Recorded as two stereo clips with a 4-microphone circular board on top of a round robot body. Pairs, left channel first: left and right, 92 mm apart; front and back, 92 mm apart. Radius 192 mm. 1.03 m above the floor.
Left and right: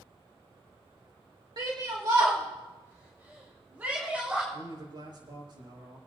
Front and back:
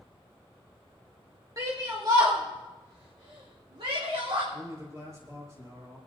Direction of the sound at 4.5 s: 125° right.